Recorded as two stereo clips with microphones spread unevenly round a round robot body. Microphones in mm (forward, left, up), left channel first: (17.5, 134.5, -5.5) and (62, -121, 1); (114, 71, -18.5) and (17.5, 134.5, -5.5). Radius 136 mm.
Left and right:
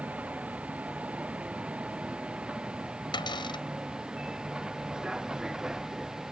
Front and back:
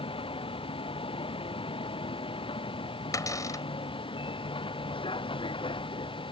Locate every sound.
0.0 s a vehicle: 5° left; by 6.3 s 10° left
3.1 s a cupboard door: 30° left